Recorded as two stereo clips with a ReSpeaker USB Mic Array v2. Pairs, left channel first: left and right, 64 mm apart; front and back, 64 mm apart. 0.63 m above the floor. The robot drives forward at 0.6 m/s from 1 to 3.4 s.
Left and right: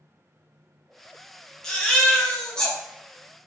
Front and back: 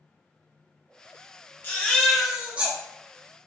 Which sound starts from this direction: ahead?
A baby crying, at 1.6 s.